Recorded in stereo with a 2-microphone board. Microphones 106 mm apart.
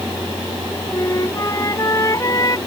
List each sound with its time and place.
0.9 s a flute: 35° left (ahead or behind)